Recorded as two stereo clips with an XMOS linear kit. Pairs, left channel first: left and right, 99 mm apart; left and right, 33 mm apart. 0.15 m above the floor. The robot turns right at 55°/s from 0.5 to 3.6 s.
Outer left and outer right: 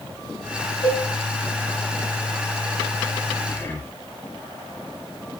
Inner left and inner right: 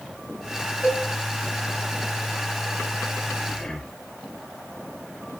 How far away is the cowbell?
About 4.5 m.